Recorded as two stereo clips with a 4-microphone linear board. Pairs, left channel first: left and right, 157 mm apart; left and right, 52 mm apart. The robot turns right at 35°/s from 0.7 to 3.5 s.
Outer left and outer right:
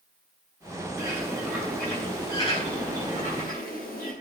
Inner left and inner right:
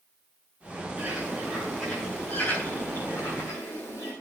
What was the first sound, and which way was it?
A bird, 20° right.